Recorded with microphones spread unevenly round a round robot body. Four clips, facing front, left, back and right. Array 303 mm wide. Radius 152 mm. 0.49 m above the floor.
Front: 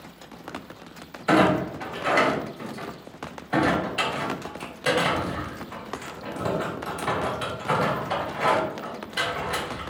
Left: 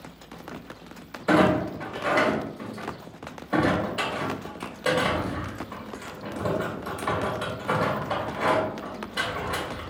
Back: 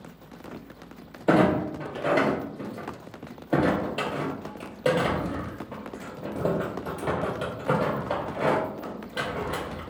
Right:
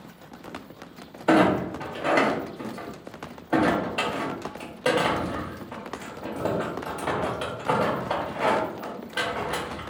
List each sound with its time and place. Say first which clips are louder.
1.3 s a clunk: right 1 dB, front 1 dB; 165° right, 0.8 m